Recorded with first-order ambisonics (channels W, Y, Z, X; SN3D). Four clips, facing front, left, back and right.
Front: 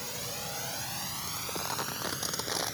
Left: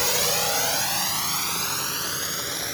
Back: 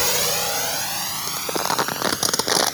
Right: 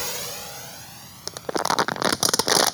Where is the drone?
160° left; by 2.8 s 110° left.